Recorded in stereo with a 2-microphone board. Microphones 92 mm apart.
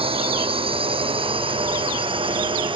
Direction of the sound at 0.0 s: 80° right.